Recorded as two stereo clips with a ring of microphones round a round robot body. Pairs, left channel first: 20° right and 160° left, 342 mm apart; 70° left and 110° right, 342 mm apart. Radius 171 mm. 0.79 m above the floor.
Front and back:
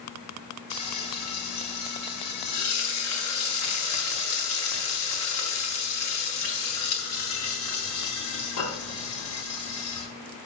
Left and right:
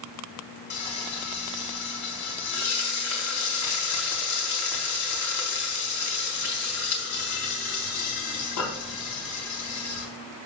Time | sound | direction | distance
0.7 | frying | 25° left | 3.5 m